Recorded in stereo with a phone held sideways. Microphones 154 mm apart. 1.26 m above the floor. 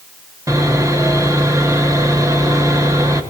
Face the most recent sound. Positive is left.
turn(degrees=-25)  # may be behind; listen again after turning